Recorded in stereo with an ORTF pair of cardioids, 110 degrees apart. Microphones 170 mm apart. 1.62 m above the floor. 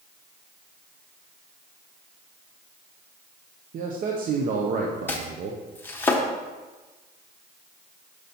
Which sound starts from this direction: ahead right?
A man speaking, at 3.7 s.